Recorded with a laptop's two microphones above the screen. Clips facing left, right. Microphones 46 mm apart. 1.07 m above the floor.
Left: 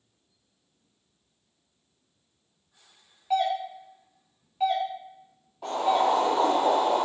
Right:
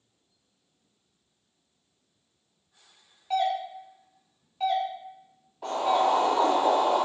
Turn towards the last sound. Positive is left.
turn(degrees=-5)  # may be behind; listen again after turning